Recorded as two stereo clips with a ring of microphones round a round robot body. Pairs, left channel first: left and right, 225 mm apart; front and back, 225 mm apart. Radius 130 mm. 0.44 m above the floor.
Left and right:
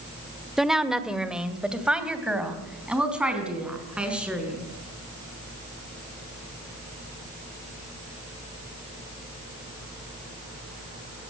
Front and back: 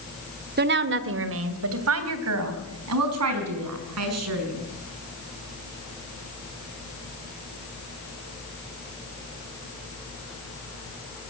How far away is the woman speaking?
About 1.4 m.